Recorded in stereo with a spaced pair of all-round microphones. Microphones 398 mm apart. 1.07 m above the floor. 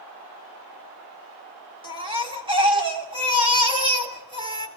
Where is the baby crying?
15° right (ahead or behind), 2.5 m.